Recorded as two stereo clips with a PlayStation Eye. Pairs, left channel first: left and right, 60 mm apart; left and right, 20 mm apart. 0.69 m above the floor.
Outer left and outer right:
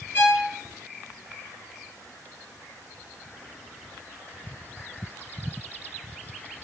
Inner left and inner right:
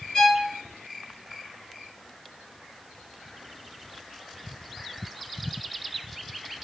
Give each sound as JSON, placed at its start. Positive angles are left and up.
{"t": 0.1, "sound": "a violin", "side_deg": 35, "distance_m": 4.5}